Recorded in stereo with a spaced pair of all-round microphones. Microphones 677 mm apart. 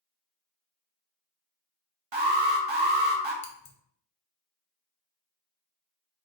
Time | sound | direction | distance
2.1 | an alarm | 40° right (ahead or behind) | 0.8 m
3.4 | scissors | 50° left (ahead or behind) | 0.7 m